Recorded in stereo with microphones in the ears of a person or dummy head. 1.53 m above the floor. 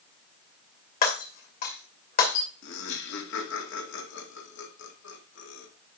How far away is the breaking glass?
About 2 m.